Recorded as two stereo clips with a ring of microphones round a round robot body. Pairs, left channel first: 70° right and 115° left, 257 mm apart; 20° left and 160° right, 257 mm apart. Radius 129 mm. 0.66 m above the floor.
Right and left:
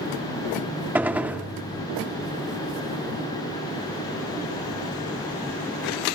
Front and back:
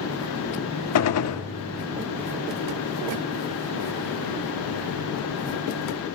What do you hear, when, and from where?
0.9 s a gunshot: 30° left, 1.1 m